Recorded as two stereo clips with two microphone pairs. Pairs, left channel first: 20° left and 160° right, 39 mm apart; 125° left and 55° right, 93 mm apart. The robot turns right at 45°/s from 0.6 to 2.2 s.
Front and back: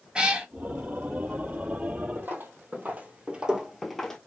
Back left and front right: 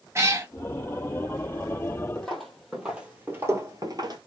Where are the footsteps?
155° right, 1.7 m; by 4.2 s 55° right, 1.1 m.